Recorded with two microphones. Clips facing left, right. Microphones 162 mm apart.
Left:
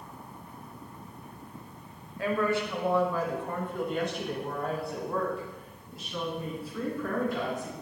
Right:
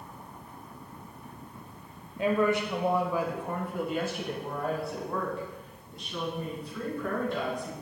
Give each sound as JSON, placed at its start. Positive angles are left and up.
{"t": 2.2, "sound": "a woman speaking", "side_deg": -20, "distance_m": 0.9}